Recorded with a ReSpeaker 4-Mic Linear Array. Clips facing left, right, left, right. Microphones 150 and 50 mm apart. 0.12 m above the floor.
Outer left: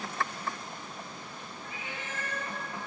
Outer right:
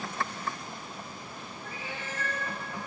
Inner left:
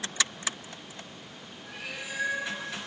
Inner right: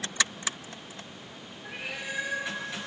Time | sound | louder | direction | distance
1.6 | a cat meowing | outer right 2 dB, inner right 3 dB | 35° right (ahead or behind) | 1.5 m